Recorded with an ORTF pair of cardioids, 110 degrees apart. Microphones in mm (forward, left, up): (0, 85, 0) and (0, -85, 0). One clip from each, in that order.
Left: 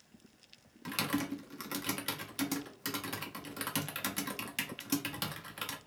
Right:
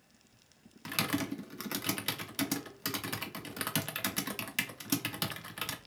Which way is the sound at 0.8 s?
15° right.